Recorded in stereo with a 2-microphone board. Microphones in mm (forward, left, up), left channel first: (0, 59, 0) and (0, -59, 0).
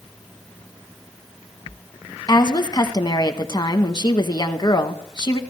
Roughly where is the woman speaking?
Left.